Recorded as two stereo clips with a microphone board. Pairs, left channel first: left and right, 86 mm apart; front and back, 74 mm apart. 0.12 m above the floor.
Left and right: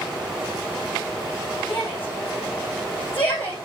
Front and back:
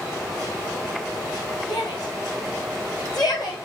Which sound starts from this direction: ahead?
A shout, at 1.7 s.